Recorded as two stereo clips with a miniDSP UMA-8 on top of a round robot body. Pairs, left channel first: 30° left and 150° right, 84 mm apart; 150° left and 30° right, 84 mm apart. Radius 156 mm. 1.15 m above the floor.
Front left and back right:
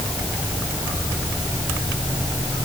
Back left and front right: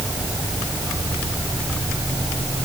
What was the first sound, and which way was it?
Only background noise.